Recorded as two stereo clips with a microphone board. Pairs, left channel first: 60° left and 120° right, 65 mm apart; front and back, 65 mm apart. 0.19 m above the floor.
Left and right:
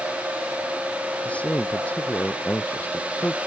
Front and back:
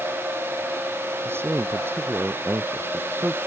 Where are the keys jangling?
I don't hear keys jangling.